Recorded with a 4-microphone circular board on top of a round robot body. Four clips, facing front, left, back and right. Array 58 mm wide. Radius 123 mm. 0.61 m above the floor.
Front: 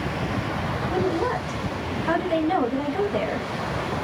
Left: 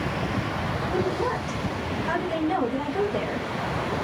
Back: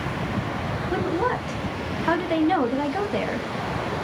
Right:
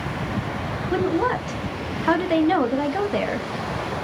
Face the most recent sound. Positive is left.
turn(degrees=-110)